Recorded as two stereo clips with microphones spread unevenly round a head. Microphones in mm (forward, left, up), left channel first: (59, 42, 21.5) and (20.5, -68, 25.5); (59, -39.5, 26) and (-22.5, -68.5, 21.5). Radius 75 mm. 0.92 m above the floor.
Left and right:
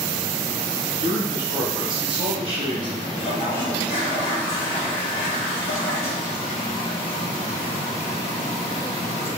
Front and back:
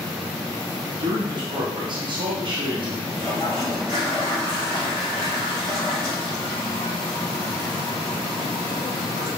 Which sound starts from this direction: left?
A toilet flushing, at 3.2 s.